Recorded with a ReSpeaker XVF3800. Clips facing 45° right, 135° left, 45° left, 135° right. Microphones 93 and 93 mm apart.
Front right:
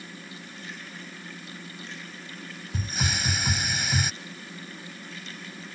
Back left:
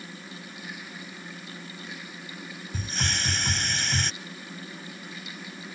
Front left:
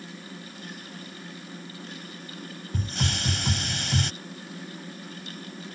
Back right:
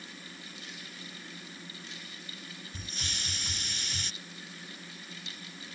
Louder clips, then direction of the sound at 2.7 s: Front right 2 dB, front left 14 dB; 40° left.